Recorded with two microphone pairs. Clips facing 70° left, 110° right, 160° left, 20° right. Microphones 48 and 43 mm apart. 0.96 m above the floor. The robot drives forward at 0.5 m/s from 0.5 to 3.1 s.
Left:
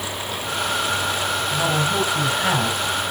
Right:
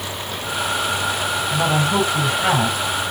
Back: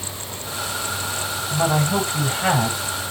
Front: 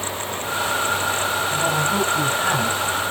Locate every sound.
1.5 s a woman speaking: 175° right, 4.5 m